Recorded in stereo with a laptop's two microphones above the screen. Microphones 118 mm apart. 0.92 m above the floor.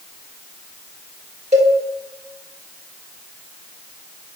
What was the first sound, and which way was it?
A cowbell, 75° right (ahead or behind).